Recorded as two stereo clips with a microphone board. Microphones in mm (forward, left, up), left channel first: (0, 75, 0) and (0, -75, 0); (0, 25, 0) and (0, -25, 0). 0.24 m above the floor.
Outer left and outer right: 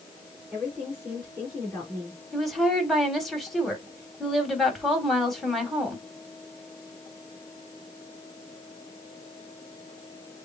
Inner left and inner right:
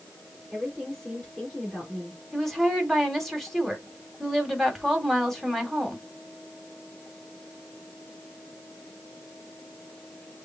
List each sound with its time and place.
0.5 s a woman speaking: 5° right (ahead or behind), 3 m
2.3 s a woman speaking: centre (ahead or behind), 1.6 m